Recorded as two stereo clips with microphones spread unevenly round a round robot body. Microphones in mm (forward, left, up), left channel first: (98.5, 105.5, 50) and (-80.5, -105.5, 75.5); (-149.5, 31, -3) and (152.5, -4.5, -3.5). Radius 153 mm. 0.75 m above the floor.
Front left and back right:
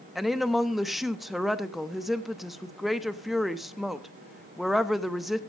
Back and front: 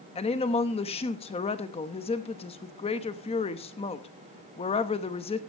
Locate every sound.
0.1 s a woman speaking: 130° left, 0.9 m